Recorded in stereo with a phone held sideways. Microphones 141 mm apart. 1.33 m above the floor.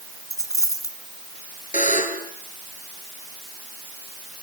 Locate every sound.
0.3 s a dropped coin: 25° left (ahead or behind), 2.5 m
1.7 s a buzzer: 65° left (ahead or behind), 4 m